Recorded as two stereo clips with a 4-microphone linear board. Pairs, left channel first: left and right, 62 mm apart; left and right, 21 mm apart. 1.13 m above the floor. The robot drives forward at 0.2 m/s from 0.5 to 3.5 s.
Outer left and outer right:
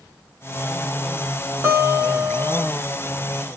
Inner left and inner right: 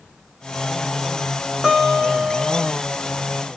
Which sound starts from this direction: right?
A guitar, at 1.6 s.